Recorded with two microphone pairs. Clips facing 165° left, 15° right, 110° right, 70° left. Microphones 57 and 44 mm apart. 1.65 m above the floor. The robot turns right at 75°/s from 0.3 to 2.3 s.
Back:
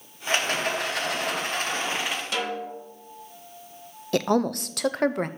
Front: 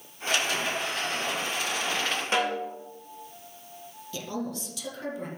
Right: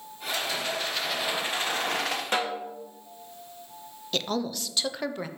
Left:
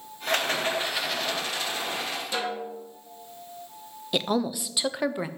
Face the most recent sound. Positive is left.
turn(degrees=155)